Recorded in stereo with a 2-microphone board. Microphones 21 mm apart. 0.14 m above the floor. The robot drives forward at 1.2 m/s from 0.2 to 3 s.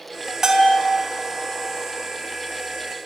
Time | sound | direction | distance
0.4 | a bell | 20° right (ahead or behind) | 1.2 m